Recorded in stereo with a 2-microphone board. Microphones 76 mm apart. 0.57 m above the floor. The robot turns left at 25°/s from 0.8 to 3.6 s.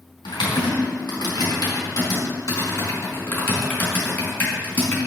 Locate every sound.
0.2 s typing on a keyboard: 85° left, 4.5 m; by 5.0 s 25° left (ahead or behind), 4.5 m